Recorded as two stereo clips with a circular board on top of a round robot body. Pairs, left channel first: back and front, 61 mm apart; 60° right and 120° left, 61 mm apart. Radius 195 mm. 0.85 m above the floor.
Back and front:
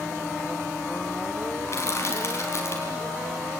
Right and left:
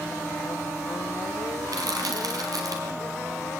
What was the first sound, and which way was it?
Crushing, 135° left.